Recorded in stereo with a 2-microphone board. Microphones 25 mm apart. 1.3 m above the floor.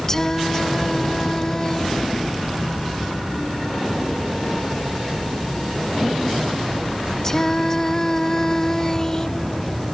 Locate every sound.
0.1 s singing: 25° left (ahead or behind)